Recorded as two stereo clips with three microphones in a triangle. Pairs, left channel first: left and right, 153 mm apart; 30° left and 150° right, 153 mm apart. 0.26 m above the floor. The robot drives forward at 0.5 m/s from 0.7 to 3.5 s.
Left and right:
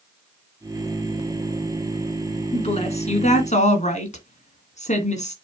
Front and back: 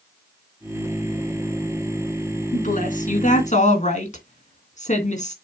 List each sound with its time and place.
2.5 s a woman speaking: 50° left, 2.5 m; by 5.3 s 60° left, 2.5 m